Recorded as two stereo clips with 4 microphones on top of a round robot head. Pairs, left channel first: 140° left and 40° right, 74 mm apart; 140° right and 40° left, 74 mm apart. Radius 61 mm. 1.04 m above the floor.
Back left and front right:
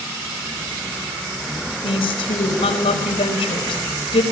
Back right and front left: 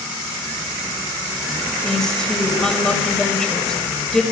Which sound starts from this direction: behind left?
A woman speaking, at 1.8 s.